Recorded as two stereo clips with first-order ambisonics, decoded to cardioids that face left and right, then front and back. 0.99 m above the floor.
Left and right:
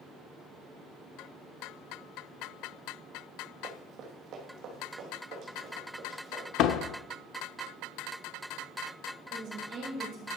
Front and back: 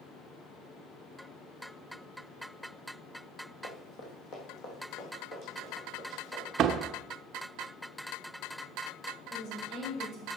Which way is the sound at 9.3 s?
50° right.